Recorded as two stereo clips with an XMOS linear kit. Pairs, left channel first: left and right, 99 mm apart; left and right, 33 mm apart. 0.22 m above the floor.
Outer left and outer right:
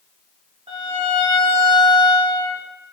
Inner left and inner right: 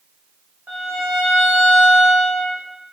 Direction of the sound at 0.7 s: 80° right.